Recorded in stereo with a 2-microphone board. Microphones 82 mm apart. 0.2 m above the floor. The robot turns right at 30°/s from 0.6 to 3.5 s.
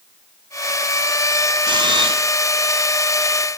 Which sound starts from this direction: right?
A camera shutter, at 1.6 s.